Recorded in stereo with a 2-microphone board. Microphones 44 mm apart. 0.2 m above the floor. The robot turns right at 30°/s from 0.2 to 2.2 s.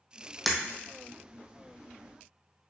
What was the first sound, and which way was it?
Breaking glass, centre (ahead or behind).